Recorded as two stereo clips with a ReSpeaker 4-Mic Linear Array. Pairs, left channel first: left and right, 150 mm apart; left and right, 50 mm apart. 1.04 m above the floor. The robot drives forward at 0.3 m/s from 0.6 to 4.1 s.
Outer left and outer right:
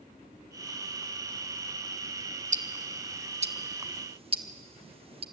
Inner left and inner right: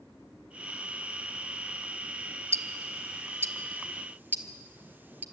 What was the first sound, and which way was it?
Ticking, 55° right (ahead or behind).